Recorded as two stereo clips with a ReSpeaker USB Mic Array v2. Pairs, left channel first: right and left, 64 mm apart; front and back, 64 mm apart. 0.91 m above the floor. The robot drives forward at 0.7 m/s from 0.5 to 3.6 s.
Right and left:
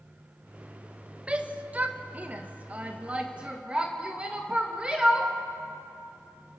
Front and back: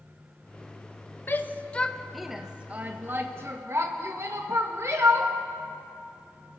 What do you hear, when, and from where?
1.3 s a shout: 30° left, 1.1 m; by 5.3 s 160° left, 1.4 m